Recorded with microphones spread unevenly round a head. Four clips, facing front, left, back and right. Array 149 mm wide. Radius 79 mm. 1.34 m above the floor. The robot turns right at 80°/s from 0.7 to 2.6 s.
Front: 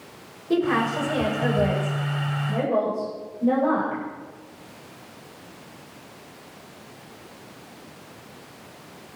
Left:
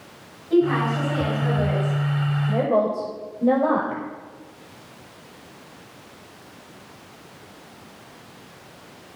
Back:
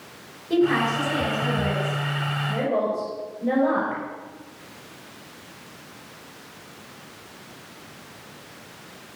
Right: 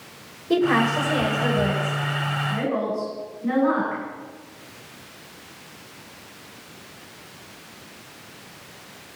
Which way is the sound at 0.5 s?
75° right.